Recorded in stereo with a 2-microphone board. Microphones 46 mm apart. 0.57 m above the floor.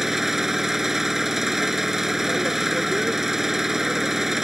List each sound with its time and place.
0.0 s an engine running: 5° right (ahead or behind)